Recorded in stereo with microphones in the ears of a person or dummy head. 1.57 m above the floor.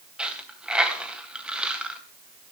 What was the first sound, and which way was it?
A dropped coin, 5° right (ahead or behind).